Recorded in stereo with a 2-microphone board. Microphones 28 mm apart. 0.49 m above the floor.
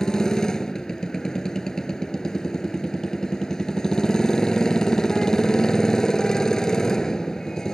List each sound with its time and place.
0.0 s a motorcycle: 20° left (ahead or behind)